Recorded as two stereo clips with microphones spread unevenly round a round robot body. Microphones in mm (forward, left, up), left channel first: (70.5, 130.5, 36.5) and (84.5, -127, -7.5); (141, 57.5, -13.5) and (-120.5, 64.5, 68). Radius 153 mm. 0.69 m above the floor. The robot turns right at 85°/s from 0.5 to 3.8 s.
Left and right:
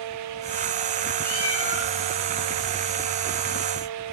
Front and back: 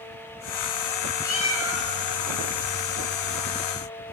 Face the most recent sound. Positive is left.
turn(degrees=-90)